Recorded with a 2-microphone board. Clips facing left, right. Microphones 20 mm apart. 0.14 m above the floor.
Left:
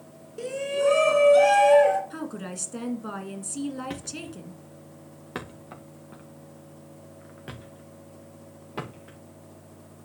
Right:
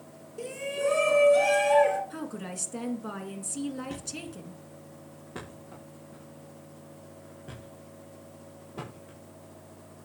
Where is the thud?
70° left (ahead or behind), 3 m.